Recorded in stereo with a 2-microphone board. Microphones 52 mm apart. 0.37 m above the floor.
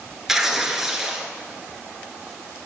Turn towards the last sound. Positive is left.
turn(degrees=-5)  # may be behind; listen again after turning